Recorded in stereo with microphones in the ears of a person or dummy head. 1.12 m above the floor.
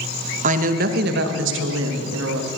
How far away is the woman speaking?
About 1.4 m.